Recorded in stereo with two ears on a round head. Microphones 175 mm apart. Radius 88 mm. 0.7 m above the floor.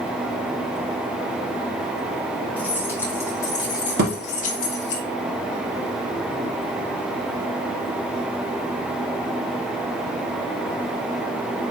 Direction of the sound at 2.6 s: 10° left (ahead or behind).